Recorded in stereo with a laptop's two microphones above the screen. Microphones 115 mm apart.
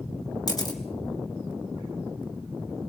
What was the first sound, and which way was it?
A camera shutter, 35° left (ahead or behind).